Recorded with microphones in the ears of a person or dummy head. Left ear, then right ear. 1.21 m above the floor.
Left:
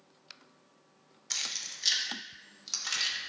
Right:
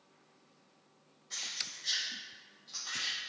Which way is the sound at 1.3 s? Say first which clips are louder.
Left 4 dB; 65° left (ahead or behind).